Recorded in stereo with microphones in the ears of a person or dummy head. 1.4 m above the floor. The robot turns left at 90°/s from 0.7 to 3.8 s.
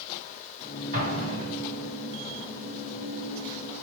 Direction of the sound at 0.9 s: 40° right.